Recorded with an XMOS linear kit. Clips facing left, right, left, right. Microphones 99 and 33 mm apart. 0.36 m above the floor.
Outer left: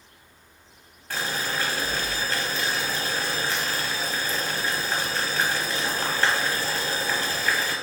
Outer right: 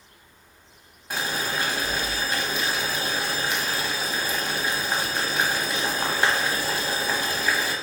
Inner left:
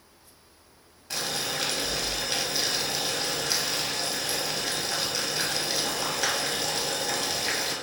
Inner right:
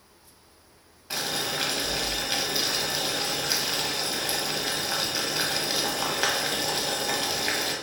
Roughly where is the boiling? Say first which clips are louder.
Outer right 1 dB, inner right 1 dB; centre.